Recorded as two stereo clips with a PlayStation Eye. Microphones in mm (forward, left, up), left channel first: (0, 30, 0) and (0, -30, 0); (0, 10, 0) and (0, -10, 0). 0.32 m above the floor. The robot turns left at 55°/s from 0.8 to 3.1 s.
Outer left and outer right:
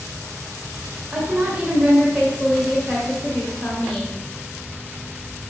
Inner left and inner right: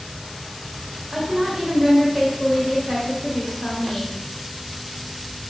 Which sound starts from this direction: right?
A woman speaking, at 1.1 s.